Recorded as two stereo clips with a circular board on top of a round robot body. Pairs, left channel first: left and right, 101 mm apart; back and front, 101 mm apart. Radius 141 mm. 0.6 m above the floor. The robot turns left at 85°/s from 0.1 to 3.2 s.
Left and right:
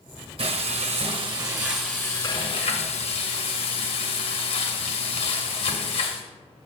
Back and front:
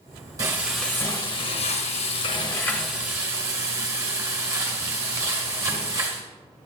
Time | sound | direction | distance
0.4 | frying | 60° right | 1.2 m